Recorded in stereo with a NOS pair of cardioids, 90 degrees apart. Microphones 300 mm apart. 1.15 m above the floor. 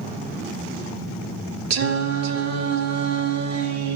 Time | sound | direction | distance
1.7 | singing | 65° right | 1.1 m